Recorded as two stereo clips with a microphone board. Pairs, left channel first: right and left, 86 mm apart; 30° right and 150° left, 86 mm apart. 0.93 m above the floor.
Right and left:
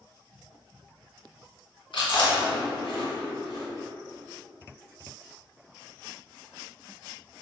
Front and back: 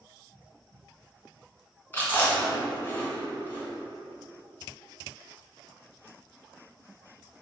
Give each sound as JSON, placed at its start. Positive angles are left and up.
{"t": 1.9, "sound": "chewing", "azimuth_deg": -90, "distance_m": 2.0}